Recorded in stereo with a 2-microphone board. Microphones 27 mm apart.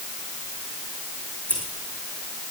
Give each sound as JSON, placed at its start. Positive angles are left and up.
{"t": 1.5, "sound": "scissors", "side_deg": 60, "distance_m": 5.0}